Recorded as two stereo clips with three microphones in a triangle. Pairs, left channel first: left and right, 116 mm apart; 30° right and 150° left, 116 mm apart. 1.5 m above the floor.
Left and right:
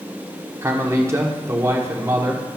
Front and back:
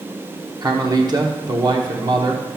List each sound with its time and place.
0.6 s a man speaking: 155° right, 0.9 m